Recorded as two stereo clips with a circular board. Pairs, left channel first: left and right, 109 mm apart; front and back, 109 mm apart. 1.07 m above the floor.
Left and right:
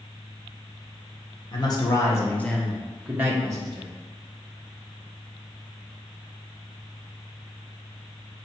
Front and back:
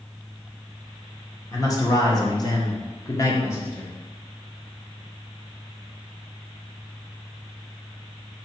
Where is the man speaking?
50° left, 1.2 m; by 3.9 s 65° right, 1.0 m.